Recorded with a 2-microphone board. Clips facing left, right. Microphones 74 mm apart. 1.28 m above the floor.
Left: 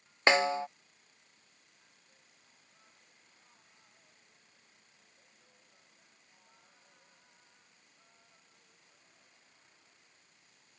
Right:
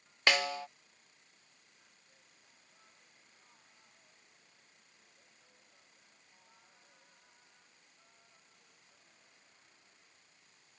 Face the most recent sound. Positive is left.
turn(degrees=25)  # may be behind; listen again after turning